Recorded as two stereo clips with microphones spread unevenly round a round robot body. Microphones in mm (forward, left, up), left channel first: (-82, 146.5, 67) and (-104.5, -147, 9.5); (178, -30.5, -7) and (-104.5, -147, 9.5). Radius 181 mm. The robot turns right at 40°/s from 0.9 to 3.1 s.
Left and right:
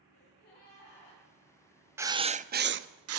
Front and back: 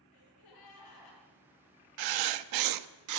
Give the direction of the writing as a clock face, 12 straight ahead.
6 o'clock.